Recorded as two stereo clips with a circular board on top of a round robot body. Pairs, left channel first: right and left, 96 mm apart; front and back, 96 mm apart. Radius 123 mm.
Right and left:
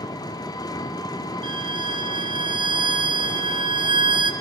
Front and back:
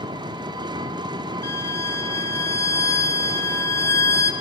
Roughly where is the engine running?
Behind right.